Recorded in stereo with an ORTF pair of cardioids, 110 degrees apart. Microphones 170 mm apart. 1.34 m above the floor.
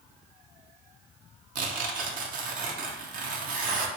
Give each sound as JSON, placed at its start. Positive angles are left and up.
{"t": 1.6, "sound": "tearing paper", "azimuth_deg": -55, "distance_m": 0.7}